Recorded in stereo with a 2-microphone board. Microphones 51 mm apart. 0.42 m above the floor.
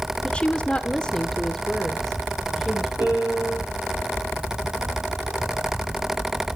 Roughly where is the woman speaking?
Left.